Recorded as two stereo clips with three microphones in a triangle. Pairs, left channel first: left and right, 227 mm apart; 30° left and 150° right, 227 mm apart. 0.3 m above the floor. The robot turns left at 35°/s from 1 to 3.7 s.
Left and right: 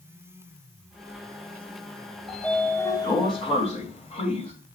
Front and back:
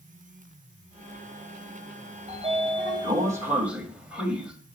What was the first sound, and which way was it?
A sliding door, straight behind.